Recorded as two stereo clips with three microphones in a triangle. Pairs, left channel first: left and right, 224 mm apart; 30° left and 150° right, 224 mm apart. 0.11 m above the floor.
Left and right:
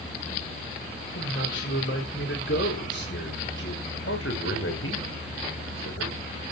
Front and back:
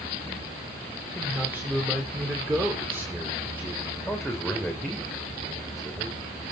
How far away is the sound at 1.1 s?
About 9.5 m.